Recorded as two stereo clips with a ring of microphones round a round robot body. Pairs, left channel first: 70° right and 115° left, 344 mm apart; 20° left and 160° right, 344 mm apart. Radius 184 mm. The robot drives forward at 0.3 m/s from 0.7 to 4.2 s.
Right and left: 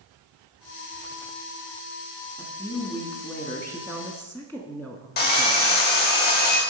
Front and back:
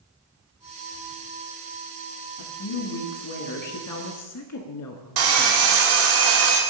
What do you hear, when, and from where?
2.4 s a woman speaking: 20° left, 1.3 m; by 5.9 s 35° left, 1.0 m
5.2 s sawing: 130° right, 1.4 m